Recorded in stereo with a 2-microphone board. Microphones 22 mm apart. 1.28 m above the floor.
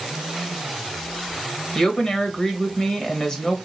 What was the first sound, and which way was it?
A woman speaking, 40° left (ahead or behind).